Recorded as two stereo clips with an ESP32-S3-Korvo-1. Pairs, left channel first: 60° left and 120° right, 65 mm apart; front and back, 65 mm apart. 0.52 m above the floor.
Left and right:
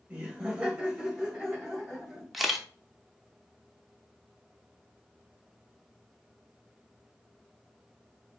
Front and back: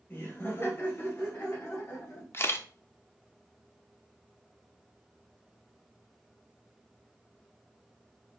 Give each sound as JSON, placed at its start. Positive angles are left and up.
{"t": 0.1, "sound": "laughter", "azimuth_deg": -50, "distance_m": 3.0}
{"t": 2.3, "sound": "a camera shutter", "azimuth_deg": -35, "distance_m": 0.7}